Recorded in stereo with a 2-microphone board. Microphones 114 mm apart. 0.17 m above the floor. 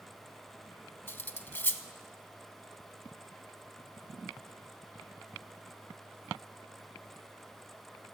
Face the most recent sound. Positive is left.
turn(degrees=20)  # may be behind; listen again after turning